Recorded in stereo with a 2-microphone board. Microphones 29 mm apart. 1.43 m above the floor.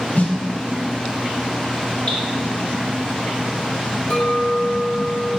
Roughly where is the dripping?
Left.